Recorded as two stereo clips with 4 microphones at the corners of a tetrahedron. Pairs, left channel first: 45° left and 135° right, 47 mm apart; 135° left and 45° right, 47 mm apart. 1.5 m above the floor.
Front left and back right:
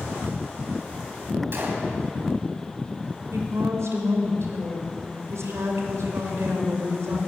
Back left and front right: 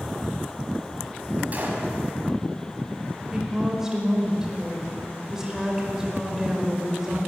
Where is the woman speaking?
125° right, 5.5 m.